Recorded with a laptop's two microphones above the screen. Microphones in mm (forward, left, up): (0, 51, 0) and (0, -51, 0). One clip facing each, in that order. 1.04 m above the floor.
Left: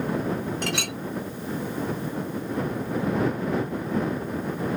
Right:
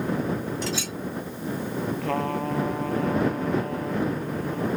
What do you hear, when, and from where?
0.6 s a clink: 55° left (ahead or behind)
2.0 s a trumpet: 70° right (ahead or behind)